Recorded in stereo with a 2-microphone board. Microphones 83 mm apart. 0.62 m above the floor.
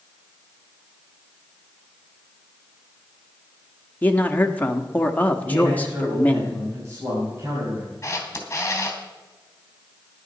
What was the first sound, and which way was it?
A man speaking, 20° left (ahead or behind).